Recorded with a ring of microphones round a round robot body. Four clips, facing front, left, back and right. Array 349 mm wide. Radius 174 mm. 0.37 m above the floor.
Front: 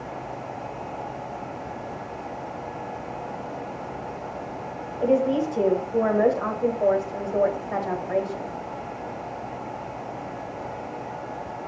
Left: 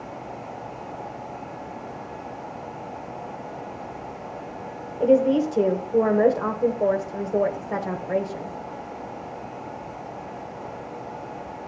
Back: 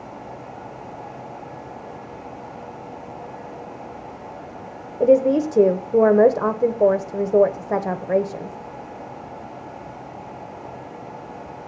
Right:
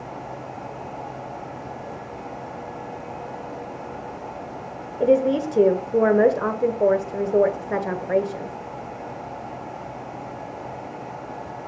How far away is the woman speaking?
About 1.2 m.